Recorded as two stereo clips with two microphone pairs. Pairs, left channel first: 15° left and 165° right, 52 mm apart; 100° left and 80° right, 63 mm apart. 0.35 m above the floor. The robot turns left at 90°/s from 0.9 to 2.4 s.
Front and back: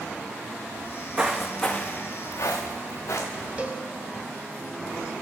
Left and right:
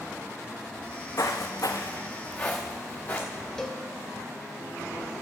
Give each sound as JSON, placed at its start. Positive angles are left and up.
{"t": 0.8, "sound": "footsteps", "azimuth_deg": 140, "distance_m": 1.0}
{"t": 3.6, "sound": "a cowbell", "azimuth_deg": 175, "distance_m": 1.1}